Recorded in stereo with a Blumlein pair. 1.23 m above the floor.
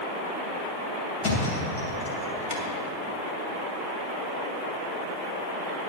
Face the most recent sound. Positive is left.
turn(degrees=55)